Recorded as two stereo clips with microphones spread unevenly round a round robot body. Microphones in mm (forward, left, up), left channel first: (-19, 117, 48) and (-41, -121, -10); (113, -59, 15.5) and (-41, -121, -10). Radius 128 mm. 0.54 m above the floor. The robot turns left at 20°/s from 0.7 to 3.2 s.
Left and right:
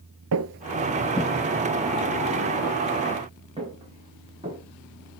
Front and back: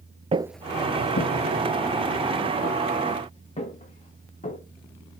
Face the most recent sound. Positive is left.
turn(degrees=-20)